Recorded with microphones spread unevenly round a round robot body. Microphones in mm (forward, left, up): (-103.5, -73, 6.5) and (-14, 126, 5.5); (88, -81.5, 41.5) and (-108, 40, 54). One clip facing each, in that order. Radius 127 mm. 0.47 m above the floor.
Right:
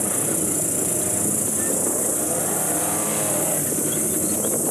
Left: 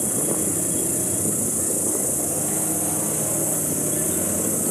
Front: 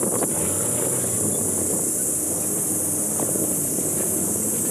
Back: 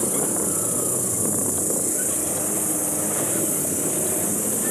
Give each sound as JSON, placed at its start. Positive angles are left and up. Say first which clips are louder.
{"t": 0.0, "sound": "an insect", "louder": "even, front 1 dB", "azimuth_deg": -140, "distance_m": 4.0}